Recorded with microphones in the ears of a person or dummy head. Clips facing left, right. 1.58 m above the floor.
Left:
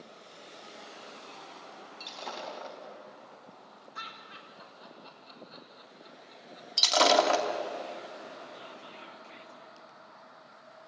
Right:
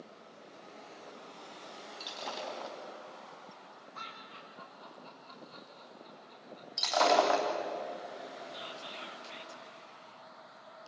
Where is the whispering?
55° right (ahead or behind), 1.7 m.